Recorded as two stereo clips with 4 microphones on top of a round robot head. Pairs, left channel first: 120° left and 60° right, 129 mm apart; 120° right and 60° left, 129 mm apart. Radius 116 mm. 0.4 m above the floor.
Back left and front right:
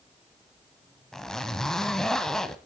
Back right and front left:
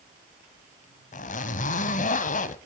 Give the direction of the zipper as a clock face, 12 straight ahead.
5 o'clock.